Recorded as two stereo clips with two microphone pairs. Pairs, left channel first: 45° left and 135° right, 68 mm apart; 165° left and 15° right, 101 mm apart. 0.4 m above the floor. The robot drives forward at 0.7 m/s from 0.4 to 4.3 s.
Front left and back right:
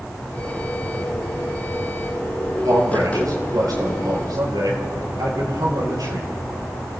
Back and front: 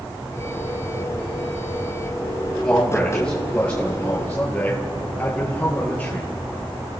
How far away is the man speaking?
About 6 m.